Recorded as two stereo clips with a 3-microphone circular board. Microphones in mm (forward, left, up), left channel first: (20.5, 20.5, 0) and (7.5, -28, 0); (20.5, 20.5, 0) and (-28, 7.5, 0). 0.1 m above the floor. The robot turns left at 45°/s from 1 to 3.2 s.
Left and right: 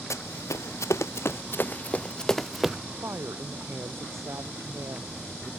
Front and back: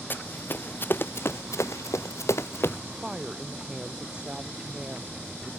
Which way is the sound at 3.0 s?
85° right.